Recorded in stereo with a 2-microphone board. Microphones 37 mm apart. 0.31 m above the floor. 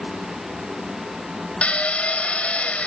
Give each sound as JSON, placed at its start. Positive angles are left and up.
{"t": 1.6, "sound": "a drill", "side_deg": 40, "distance_m": 1.1}